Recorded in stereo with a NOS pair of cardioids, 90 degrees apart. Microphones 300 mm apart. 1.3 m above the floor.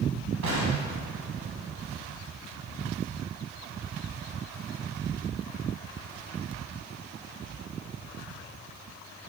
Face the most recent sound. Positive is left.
turn(degrees=-70)